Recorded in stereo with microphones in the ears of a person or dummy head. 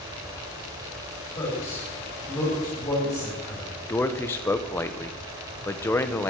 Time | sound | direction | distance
1.4 | a man speaking | 25° left (ahead or behind) | 5.5 m
3.9 | a man speaking | 15° left (ahead or behind) | 1.0 m